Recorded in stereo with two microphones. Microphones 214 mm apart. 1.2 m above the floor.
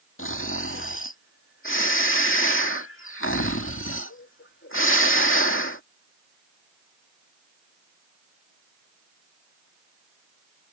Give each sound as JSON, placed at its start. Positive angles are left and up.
{"t": 0.2, "sound": "snoring", "side_deg": 70}